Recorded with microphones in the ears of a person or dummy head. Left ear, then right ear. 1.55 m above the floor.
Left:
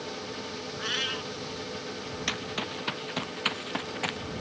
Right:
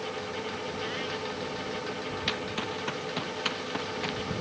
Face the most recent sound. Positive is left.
turn(degrees=25)  # may be behind; listen again after turning